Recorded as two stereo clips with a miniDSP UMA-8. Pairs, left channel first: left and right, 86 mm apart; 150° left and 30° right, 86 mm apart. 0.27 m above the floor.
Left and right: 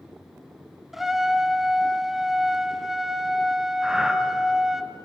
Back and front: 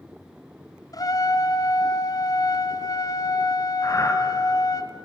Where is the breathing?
170° right, 2.5 m.